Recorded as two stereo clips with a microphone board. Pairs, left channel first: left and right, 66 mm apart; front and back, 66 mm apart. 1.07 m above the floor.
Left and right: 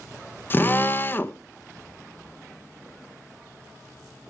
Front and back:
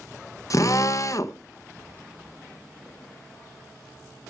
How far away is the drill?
About 0.7 m.